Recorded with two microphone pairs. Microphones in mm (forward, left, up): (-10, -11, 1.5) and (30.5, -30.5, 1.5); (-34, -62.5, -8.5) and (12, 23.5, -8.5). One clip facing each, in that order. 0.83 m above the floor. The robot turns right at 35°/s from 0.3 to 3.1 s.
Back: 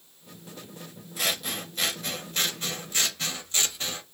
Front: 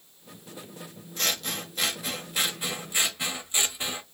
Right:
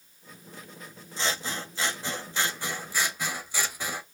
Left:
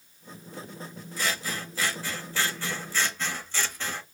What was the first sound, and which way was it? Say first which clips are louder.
Scissors: even, even; 125° right.